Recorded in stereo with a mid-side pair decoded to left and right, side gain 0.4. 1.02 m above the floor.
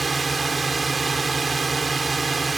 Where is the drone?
30° right.